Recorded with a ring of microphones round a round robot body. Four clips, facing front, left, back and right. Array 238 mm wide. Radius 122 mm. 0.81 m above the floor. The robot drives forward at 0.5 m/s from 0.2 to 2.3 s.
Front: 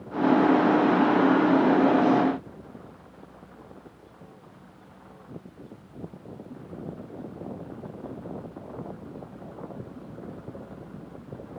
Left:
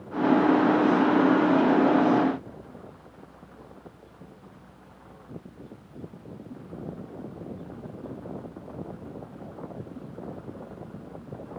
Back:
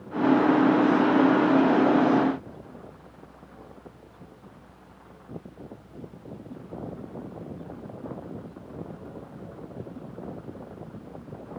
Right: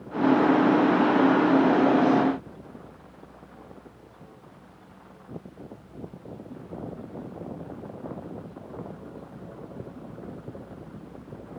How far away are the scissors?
I don't hear scissors.